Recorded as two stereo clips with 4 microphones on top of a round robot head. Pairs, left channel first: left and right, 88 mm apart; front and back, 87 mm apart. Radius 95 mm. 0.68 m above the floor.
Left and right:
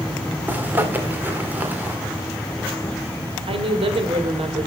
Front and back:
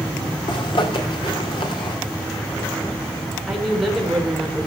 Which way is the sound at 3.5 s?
90° right.